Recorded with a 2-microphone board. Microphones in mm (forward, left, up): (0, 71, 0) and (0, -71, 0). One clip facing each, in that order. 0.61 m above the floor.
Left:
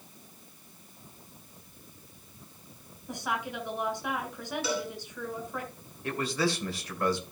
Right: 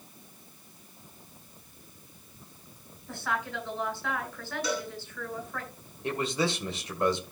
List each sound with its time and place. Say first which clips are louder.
3.1 s a woman speaking: even; 15° left (ahead or behind), 3.5 m
4.6 s a cowbell: even; 5° left (ahead or behind), 3.5 m
6.0 s a man speaking: even; 25° right (ahead or behind), 2.5 m